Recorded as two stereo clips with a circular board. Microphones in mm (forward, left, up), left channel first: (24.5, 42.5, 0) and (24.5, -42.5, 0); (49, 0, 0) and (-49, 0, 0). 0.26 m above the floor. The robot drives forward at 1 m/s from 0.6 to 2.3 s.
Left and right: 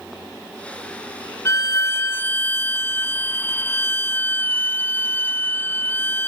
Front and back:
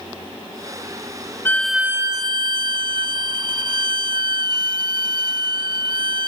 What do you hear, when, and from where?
1.4 s a violin: 55° left; by 6.3 s 150° left